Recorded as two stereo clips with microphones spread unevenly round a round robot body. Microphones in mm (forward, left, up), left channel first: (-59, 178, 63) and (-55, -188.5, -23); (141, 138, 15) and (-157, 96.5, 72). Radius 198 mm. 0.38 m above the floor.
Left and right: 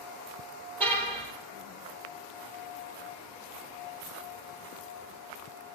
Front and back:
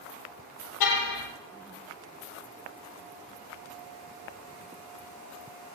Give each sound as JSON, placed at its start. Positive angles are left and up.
{"t": 0.8, "sound": "a car horn", "azimuth_deg": 5, "distance_m": 4.0}